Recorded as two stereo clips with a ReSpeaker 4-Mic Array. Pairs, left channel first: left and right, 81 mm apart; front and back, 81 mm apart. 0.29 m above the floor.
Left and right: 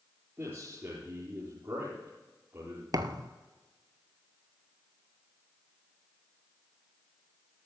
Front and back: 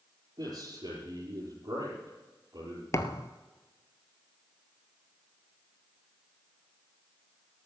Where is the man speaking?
150° right, 5 m.